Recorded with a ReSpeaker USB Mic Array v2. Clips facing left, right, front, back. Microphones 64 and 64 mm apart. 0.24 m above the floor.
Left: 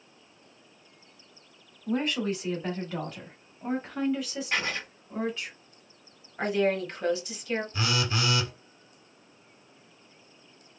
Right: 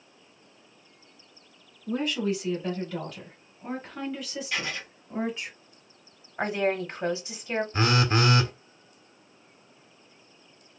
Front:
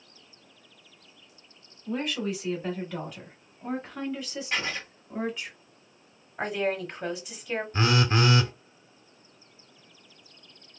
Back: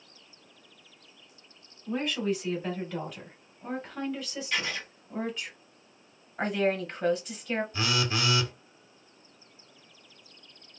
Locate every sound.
1.9 s a woman speaking: 90° left, 1.9 m; by 5.5 s 70° right, 1.4 m
4.5 s writing: 50° left, 1.2 m
6.4 s a woman speaking: 80° right, 1.0 m
7.7 s a phone buzzing: 45° right, 0.5 m